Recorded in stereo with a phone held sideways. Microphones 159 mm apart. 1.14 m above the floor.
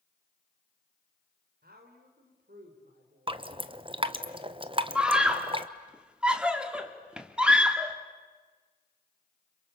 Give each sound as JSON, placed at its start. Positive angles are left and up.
{"t": 1.6, "sound": "a woman speaking", "side_deg": -85, "distance_m": 4.0}
{"t": 3.3, "sound": "dripping", "side_deg": -35, "distance_m": 1.0}
{"t": 5.0, "sound": "a scream", "side_deg": -5, "distance_m": 3.0}